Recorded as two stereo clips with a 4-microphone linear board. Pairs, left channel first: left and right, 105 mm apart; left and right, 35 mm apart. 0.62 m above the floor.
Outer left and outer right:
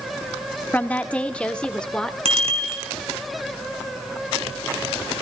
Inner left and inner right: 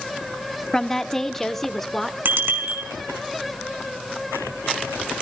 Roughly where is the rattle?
No rattle in this recording.